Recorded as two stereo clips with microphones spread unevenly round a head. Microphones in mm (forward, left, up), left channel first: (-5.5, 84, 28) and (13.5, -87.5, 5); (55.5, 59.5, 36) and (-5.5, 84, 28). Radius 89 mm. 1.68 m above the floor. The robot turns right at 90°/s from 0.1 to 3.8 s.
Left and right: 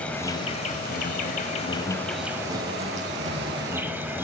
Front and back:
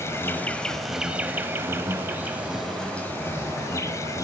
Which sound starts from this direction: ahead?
An insect, at 0.0 s.